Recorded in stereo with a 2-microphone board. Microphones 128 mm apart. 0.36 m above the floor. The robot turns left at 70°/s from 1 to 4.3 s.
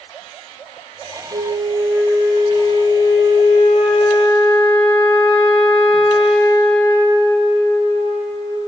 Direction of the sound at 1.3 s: 130° right.